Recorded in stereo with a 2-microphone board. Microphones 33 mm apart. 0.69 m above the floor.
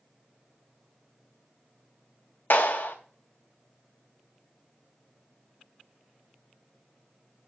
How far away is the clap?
About 3 m.